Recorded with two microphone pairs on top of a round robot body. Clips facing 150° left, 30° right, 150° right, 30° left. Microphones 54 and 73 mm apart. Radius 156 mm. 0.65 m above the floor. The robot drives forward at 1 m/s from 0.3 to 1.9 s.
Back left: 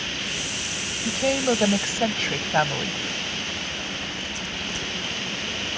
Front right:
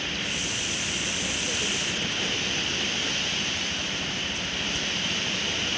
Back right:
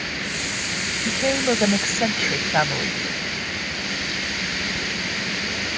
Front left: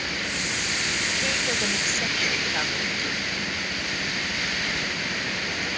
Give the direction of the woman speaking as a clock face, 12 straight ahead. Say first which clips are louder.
Back left 8 dB, back right 11 dB; 7 o'clock.